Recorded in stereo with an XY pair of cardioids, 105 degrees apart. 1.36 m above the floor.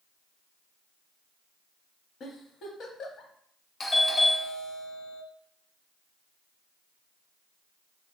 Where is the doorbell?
30° left, 0.7 m.